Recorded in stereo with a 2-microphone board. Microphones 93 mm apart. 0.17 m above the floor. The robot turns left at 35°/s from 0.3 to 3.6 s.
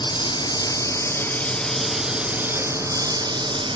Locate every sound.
0.0 s a lawn mower: 55° left; by 3.8 s 60° right